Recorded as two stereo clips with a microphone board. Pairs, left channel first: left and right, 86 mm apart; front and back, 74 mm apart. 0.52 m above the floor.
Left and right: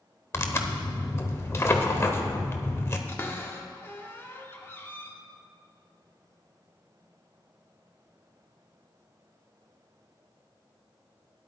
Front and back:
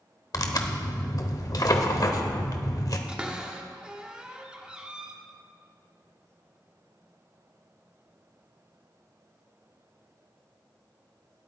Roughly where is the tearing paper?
Ahead left.